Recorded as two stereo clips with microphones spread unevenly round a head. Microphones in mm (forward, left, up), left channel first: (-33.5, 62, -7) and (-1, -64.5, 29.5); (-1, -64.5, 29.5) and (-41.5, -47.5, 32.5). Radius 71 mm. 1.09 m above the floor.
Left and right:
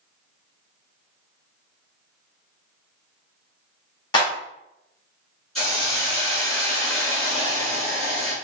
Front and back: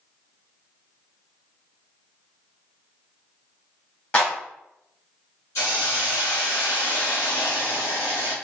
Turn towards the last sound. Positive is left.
turn(degrees=10)